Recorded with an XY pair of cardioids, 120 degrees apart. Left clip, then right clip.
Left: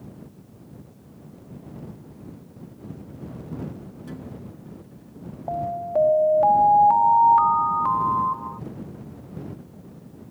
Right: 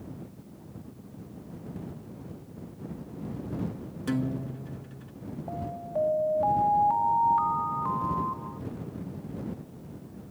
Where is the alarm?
45° left.